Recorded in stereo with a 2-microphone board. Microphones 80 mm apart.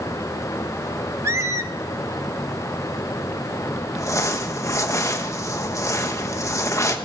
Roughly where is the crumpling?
Left.